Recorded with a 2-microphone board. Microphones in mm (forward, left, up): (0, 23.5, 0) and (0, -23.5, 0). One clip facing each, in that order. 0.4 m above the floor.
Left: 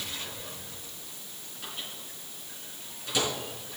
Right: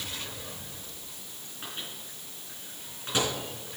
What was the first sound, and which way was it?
A microwave, 35° right (ahead or behind).